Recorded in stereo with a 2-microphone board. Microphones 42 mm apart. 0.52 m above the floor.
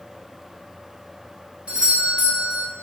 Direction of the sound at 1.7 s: 25° right (ahead or behind).